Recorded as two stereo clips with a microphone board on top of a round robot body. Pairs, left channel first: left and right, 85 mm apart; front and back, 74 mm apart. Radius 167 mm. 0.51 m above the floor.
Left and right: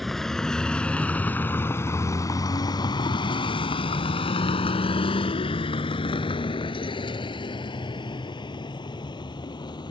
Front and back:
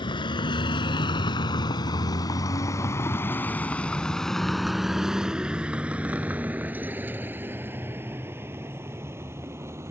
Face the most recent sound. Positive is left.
turn(degrees=125)